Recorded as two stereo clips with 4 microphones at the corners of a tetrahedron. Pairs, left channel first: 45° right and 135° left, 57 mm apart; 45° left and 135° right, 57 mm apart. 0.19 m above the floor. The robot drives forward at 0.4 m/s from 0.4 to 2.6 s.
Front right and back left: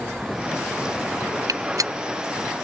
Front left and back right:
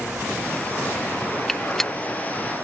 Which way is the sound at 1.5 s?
130° left.